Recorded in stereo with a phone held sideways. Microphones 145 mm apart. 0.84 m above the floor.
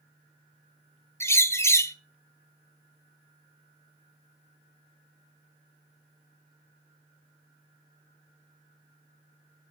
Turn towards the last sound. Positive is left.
turn(degrees=15)  # may be behind; listen again after turning